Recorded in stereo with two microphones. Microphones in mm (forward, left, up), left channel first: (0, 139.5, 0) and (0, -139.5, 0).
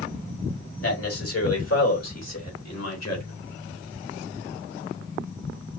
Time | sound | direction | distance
0.8 | a man speaking | 55° left (ahead or behind) | 2.5 m